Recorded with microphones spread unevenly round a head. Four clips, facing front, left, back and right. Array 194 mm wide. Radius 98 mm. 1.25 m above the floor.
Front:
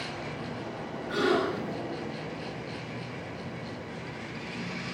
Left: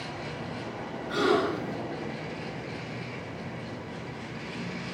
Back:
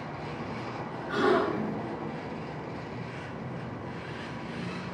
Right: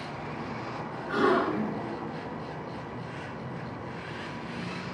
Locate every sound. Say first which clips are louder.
1.1 s a gasp: even, back 1 dB; 105° right, 9 m